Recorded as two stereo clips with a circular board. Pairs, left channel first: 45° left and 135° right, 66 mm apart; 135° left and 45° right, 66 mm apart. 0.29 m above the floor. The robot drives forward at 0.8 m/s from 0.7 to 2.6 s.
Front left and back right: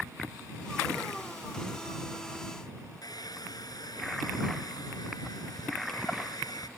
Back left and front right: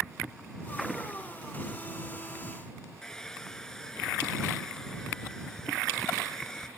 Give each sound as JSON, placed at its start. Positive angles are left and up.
{"t": 3.0, "sound": "a hair dryer", "azimuth_deg": 55}